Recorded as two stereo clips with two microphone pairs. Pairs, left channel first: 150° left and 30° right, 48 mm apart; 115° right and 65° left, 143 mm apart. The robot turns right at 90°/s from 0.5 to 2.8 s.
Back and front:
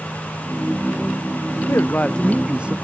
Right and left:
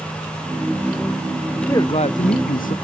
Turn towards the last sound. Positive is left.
turn(degrees=-85)